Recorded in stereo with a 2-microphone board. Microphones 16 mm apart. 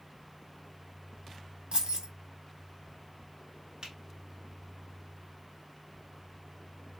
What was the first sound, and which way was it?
Keys jangling, 75° right (ahead or behind).